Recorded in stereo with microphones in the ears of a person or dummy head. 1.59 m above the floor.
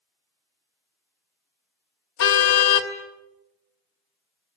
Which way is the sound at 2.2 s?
70° left (ahead or behind).